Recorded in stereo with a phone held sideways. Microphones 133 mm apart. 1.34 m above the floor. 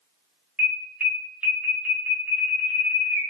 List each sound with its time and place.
0.6 s an alarm: 10° right (ahead or behind), 0.7 m